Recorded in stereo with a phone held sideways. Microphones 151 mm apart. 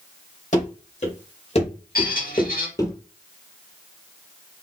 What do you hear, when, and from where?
0.5 s running footsteps: 55° left (ahead or behind), 2 m; by 2.9 s 20° left (ahead or behind), 1.1 m
1.9 s a squeak: 80° left, 1.8 m